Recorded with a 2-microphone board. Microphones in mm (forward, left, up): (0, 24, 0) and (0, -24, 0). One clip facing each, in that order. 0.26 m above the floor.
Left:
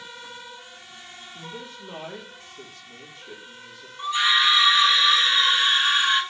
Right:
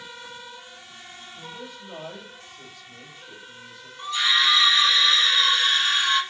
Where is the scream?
25° left (ahead or behind), 3 m.